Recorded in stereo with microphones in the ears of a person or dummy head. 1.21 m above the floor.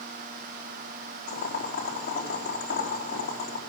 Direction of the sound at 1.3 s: 50° left (ahead or behind).